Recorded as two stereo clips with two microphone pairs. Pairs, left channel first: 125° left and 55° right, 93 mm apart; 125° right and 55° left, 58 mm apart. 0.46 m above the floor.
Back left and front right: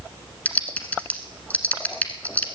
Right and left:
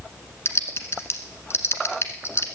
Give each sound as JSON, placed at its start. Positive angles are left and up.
{"t": 0.5, "sound": "typing on a keyboard", "azimuth_deg": -165, "distance_m": 1.2}